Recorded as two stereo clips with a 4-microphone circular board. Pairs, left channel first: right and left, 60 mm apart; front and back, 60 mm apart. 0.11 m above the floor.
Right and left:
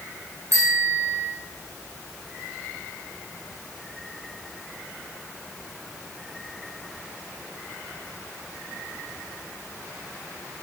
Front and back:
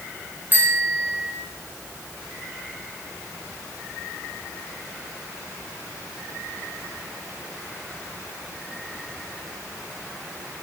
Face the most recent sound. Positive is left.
turn(degrees=120)